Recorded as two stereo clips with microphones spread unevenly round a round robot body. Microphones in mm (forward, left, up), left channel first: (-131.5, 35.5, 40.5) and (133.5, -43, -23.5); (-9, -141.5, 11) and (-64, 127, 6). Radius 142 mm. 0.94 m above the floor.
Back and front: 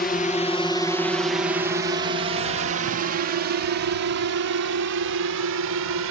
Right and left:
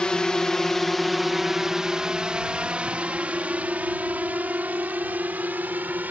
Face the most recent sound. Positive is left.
turn(degrees=20)